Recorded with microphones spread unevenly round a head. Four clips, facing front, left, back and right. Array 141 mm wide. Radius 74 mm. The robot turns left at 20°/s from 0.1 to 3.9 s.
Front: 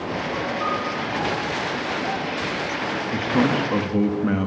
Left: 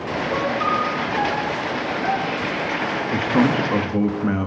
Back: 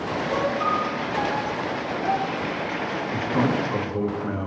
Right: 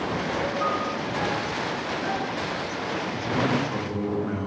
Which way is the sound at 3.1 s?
60° left.